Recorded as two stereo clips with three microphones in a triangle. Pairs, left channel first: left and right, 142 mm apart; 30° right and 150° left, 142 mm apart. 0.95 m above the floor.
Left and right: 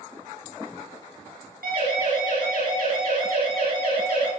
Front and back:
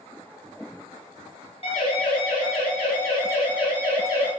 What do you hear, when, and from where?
1.6 s a siren: 80° right, 9 m; by 4.3 s 85° right, 11 m